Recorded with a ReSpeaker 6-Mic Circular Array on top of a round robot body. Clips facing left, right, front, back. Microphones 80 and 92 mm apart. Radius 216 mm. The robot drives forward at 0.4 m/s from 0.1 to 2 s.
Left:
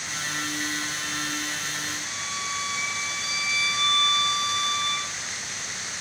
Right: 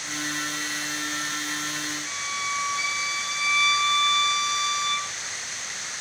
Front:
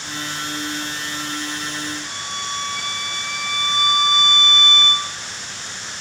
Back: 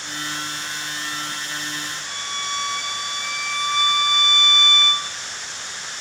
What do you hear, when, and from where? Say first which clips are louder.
2.0 s a violin: right 2 dB, front 1 dB; 115° right, 1.0 m